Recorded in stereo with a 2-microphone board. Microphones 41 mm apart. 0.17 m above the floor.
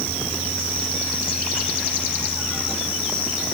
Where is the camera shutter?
No camera shutter in this recording.